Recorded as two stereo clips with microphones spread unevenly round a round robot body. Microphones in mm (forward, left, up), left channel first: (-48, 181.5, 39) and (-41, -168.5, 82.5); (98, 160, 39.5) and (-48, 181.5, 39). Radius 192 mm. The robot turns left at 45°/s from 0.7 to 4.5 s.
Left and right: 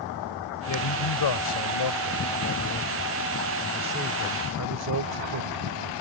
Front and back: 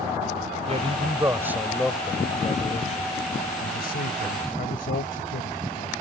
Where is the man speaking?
130° left; by 5.9 s 40° right.